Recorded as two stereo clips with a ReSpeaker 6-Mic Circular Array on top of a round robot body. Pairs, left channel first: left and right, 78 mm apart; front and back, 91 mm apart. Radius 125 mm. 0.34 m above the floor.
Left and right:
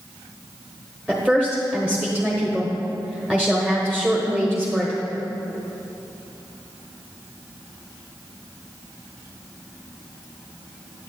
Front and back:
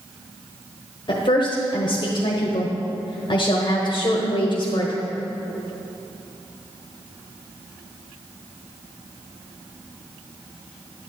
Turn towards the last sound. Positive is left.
turn(degrees=-10)